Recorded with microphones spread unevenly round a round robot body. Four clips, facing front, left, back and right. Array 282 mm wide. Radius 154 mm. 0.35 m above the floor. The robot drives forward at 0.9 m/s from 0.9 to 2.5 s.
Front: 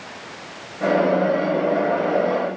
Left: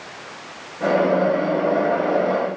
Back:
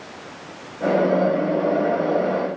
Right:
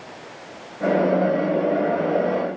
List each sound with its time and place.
Only background noise.